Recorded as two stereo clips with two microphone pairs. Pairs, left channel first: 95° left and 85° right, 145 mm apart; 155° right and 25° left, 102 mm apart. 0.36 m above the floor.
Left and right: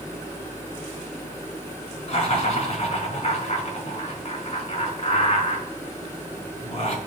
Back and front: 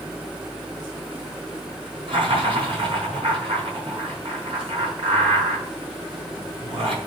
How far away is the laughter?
About 4.5 m.